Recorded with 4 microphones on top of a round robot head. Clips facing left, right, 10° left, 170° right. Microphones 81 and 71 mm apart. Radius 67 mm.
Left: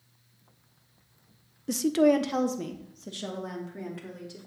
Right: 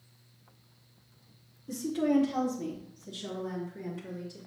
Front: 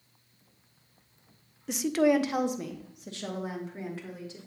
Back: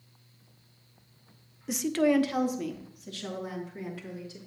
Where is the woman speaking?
105° left, 0.5 m; by 4.4 s 65° left, 3 m.